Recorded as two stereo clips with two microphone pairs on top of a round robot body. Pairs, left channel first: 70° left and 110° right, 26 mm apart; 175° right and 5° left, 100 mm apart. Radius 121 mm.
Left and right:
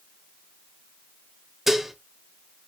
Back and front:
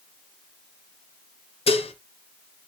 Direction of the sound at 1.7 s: 170° left.